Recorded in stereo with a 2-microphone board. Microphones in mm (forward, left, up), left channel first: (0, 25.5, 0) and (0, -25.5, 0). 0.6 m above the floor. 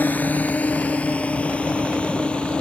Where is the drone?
30° left (ahead or behind); by 2.6 s 20° left (ahead or behind).